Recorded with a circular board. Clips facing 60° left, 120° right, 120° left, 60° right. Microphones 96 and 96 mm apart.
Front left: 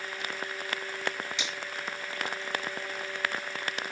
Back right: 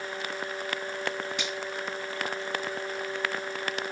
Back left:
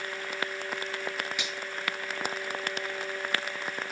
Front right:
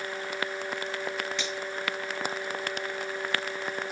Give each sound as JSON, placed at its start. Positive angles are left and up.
{"t": 1.4, "sound": "a finger snap", "azimuth_deg": -160, "distance_m": 6.0}